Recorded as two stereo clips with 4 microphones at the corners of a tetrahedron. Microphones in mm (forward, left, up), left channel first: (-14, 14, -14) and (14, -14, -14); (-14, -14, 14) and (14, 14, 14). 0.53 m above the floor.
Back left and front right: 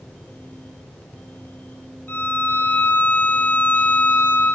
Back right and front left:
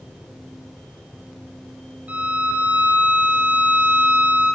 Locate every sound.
2.1 s a violin: 95° left, 4 m